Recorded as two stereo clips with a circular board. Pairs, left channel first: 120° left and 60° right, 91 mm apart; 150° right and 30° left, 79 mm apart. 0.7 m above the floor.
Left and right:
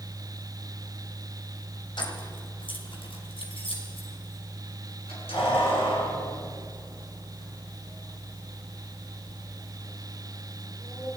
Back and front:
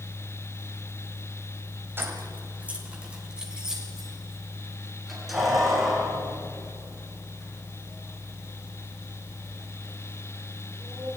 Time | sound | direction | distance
2.0 | keys jangling | 90° left | 3 m